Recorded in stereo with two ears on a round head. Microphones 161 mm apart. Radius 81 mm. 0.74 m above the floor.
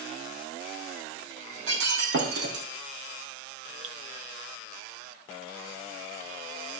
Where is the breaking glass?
65° right (ahead or behind), 2.5 m.